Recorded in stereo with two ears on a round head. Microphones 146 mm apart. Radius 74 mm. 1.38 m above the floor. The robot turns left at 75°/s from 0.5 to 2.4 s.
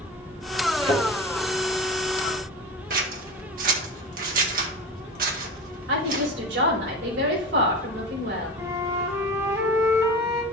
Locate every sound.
0.8 s a thud: 30° right (ahead or behind), 3 m; by 1.0 s 45° right (ahead or behind), 3 m
2.9 s scissors: 55° right (ahead or behind), 1.5 m
5.9 s a woman speaking: 85° right, 4.5 m
8.6 s a flute: 20° right (ahead or behind), 2.0 m